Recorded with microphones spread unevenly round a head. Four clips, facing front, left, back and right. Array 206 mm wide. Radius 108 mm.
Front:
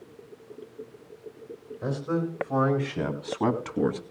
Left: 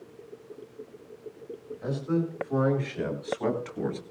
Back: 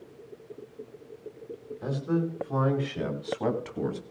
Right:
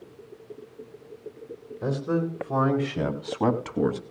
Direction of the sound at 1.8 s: 70° right.